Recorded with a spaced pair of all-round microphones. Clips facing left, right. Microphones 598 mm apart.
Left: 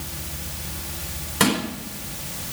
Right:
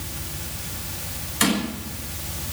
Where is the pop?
I don't hear a pop.